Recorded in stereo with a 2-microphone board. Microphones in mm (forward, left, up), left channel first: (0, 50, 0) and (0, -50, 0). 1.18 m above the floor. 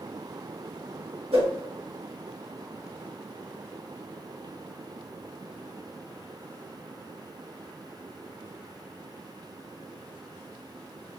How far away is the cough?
No cough in this recording.